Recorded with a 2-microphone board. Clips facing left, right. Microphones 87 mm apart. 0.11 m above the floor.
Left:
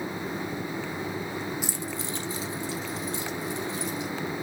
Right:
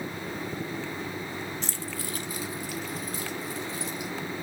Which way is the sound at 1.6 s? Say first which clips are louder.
Left 3 dB; 10° left (ahead or behind).